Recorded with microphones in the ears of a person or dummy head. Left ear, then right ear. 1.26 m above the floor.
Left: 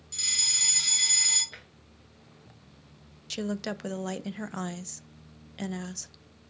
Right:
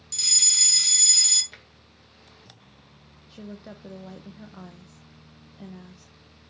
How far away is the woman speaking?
About 0.9 m.